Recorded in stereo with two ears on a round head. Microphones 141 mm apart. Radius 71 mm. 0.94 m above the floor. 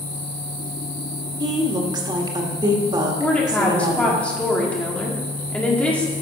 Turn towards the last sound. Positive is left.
turn(degrees=10)  # may be behind; listen again after turning